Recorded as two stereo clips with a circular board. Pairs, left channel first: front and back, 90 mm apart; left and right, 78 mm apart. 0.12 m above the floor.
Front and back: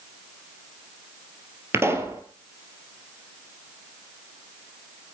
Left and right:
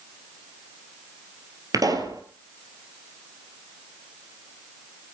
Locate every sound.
1.7 s a pop: 120° right, 2 m